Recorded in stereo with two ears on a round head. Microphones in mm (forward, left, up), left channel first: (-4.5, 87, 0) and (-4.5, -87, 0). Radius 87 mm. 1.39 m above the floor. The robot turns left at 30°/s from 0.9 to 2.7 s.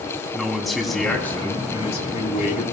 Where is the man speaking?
Straight behind, 3 m; by 2.6 s 130° left, 3 m.